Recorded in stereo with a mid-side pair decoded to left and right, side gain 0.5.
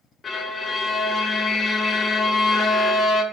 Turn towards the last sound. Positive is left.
turn(degrees=45)